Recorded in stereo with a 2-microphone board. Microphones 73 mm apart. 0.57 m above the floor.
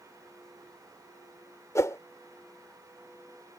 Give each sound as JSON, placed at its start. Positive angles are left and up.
{"t": 1.8, "sound": "a whoosh", "side_deg": 45}